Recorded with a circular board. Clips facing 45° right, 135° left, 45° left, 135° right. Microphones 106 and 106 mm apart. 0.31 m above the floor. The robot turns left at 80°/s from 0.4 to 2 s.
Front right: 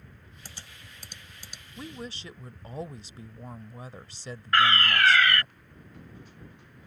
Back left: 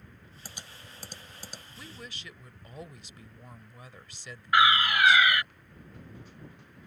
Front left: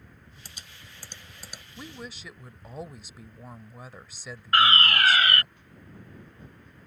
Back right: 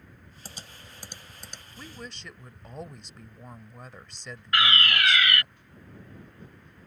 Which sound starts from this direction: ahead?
A woman speaking, at 1.8 s.